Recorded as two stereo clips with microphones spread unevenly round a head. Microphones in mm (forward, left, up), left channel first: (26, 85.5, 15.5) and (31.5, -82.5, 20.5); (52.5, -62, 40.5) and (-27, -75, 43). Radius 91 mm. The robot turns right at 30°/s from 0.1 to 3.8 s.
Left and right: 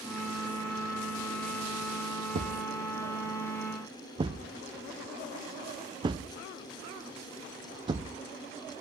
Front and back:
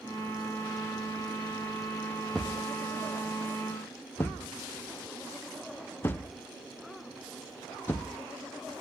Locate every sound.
2.3 s a thud: 85° right, 0.7 m; by 8.8 s 40° right, 0.7 m